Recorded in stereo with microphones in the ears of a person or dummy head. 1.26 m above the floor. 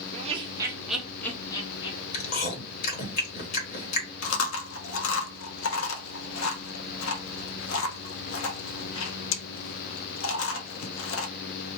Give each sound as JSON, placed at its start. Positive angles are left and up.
{"t": 0.1, "sound": "laughter", "side_deg": -35, "distance_m": 0.7}
{"t": 2.1, "sound": "chewing", "side_deg": 55, "distance_m": 1.2}
{"t": 4.2, "sound": "chewing", "side_deg": 85, "distance_m": 0.8}